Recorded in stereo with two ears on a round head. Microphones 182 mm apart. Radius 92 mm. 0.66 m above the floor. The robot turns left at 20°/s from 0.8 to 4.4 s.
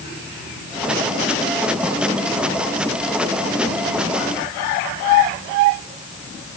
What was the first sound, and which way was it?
Only background noise.